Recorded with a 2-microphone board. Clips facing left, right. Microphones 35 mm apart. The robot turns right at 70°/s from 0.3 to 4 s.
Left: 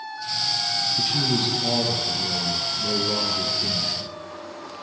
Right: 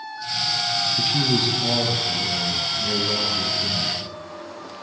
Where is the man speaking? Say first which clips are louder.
Right 2 dB; 40° right, 0.9 m; by 4.0 s 170° left, 0.9 m.